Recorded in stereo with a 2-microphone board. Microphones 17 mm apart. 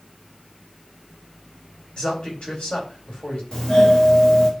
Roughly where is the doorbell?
Left.